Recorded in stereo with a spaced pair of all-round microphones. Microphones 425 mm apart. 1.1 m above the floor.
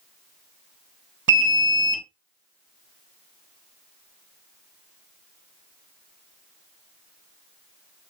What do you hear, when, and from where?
1.3 s an alarm: 50° right (ahead or behind), 0.5 m